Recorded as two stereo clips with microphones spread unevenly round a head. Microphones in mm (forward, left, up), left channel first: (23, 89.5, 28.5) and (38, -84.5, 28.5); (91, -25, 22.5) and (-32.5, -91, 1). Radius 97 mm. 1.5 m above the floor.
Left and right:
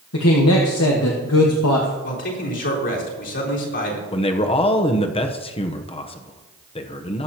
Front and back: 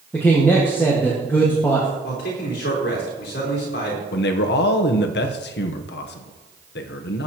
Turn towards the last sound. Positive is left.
turn(degrees=35)